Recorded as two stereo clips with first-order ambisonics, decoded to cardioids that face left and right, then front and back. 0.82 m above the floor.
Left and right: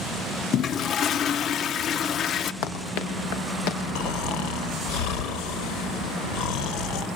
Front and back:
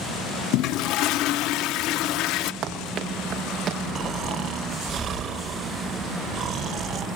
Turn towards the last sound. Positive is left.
turn(degrees=120)